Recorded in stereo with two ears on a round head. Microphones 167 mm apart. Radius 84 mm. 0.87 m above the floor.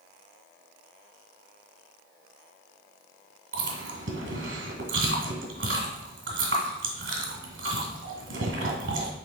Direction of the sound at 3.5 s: 70° right (ahead or behind).